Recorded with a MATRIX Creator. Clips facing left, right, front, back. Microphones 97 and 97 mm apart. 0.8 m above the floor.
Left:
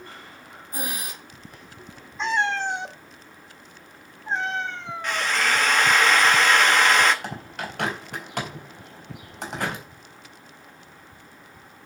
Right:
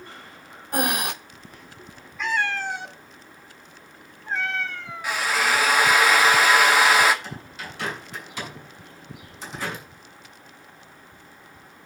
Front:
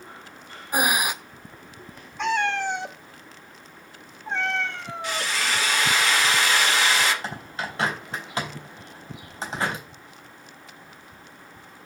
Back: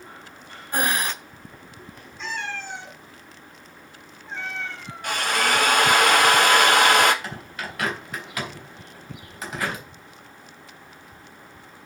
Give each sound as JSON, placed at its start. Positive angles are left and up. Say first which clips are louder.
{"t": 0.7, "sound": "breathing", "louder": "right 10 dB, front 1 dB", "azimuth_deg": -75, "distance_m": 0.7}
{"t": 2.2, "sound": "a cat meowing", "louder": "left 2 dB, front 9 dB", "azimuth_deg": 25, "distance_m": 1.1}
{"t": 5.0, "sound": "a drill", "louder": "right 1 dB, back 5 dB", "azimuth_deg": -170, "distance_m": 1.3}
{"t": 7.2, "sound": "a bird", "louder": "left 4 dB, front 2 dB", "azimuth_deg": 60, "distance_m": 3.5}